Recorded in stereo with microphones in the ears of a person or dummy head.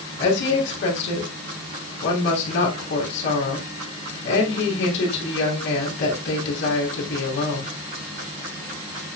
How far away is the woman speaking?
About 3 m.